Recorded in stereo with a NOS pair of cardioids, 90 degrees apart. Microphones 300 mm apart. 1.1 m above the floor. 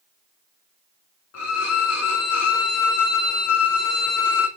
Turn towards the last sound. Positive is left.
turn(degrees=55)